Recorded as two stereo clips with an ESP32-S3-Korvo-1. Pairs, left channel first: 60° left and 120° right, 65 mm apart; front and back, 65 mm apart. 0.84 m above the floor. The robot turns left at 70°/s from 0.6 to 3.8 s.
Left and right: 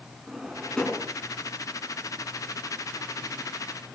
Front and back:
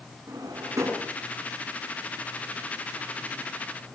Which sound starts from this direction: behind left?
A drawer, at 0.3 s.